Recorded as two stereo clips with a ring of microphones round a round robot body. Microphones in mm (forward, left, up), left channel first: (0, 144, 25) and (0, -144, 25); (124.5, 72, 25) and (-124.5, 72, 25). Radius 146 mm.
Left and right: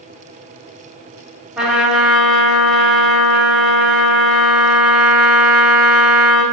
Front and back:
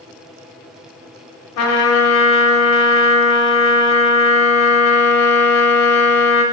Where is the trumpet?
Straight ahead, 1.2 m.